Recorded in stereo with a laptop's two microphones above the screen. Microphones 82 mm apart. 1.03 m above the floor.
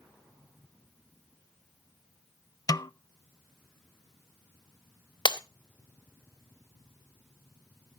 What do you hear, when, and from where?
2.7 s a snare drum: 45° left (ahead or behind), 0.6 m
5.2 s breaking glass: 60° left (ahead or behind), 0.9 m